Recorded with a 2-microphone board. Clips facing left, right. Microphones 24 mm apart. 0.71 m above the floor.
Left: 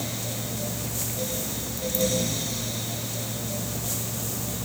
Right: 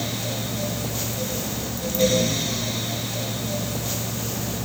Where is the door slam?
I don't hear a door slam.